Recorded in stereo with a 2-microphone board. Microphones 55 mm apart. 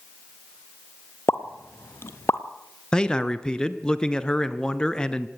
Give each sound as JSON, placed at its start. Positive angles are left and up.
{"t": 1.3, "sound": "a pop", "side_deg": 50, "distance_m": 1.2}
{"t": 2.9, "sound": "a man speaking", "side_deg": 15, "distance_m": 1.2}